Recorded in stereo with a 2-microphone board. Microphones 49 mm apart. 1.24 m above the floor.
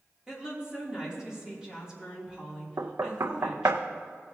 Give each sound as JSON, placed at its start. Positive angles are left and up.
{"t": 0.3, "sound": "a woman speaking", "side_deg": -15, "distance_m": 2.5}
{"t": 2.8, "sound": "knocking", "side_deg": -65, "distance_m": 0.5}